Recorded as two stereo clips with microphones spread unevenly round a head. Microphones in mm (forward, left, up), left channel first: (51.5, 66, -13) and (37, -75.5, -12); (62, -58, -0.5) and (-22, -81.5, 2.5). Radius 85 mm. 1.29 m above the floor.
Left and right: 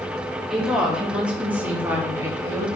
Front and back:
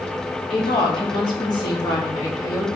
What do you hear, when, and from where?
0.5 s a woman speaking: 10° right, 3.5 m; by 2.7 s 30° right, 2.5 m